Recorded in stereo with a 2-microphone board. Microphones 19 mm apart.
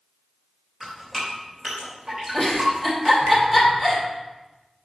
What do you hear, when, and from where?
0.8 s dripping: 40° right (ahead or behind), 3.5 m
2.3 s a giggle: 10° right (ahead or behind), 2.5 m